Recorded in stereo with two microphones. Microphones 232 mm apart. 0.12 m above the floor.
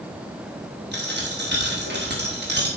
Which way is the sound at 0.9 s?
45° right (ahead or behind).